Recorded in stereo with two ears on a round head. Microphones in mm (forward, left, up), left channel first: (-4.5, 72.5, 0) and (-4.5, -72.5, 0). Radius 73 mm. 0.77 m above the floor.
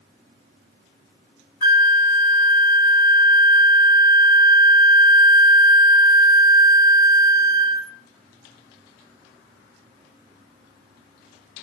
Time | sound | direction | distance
1.6 | a flute | 25° right (ahead or behind) | 1.0 m